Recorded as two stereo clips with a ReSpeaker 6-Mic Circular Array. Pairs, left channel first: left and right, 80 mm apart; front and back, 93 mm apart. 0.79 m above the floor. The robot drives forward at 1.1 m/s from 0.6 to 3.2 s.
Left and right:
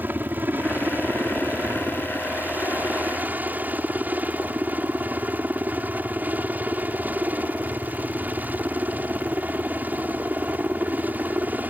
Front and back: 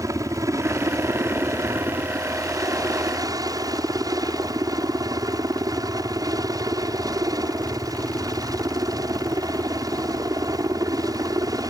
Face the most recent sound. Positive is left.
turn(degrees=-150)